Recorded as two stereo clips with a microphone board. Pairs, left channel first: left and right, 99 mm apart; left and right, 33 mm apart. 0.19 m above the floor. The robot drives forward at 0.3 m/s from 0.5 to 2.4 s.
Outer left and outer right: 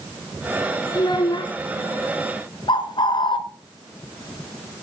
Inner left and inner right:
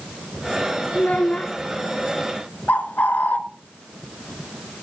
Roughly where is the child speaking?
Left.